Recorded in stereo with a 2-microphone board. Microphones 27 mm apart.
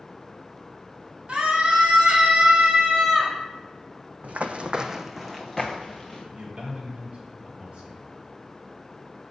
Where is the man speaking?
50° right (ahead or behind), 2 m.